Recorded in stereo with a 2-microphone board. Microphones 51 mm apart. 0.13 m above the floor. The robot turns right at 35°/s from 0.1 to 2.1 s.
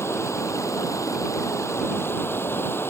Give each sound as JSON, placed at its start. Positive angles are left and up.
{"t": 0.0, "sound": "running water", "azimuth_deg": 60}